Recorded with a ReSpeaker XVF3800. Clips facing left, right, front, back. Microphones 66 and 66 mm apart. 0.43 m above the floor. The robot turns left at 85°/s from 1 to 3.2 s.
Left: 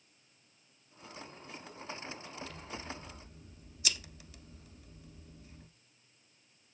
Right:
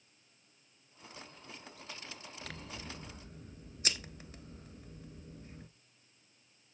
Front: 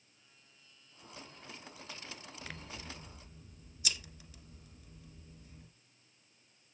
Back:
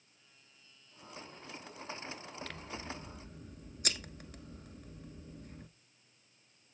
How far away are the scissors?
About 1.0 m.